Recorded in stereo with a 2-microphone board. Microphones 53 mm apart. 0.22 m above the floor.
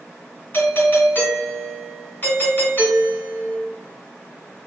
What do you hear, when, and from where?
0.5 s a doorbell: 45° left (ahead or behind), 1.9 m